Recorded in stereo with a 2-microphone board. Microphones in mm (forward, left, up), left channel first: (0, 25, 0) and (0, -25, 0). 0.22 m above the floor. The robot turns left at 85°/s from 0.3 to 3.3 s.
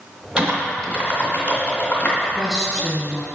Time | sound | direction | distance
0.4 | typing on a keyboard | 20° right (ahead or behind) | 1.9 m
2.2 | a woman speaking | 15° right (ahead or behind) | 1.0 m